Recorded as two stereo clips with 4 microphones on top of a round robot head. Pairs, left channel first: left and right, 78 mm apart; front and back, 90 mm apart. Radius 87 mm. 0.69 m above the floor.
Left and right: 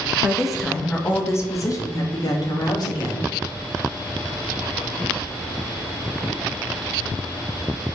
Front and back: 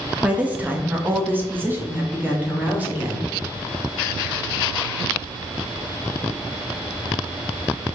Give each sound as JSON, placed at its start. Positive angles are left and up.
{"t": 0.2, "sound": "a woman speaking", "azimuth_deg": -130, "distance_m": 0.6}